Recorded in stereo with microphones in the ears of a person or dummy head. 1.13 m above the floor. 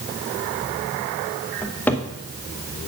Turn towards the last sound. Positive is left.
turn(degrees=10)  # may be behind; listen again after turning